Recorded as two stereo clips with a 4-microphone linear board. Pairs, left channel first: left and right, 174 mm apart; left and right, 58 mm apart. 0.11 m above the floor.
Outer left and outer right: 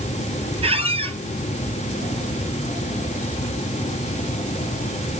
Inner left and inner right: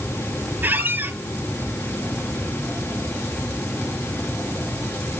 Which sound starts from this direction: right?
A squeak, at 0.6 s.